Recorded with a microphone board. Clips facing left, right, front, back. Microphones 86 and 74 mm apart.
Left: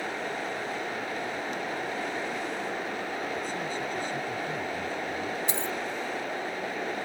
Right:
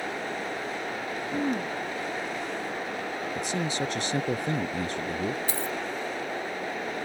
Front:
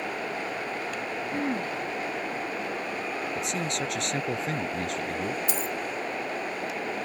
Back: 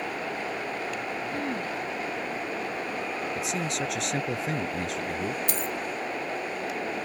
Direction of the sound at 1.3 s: 70° right.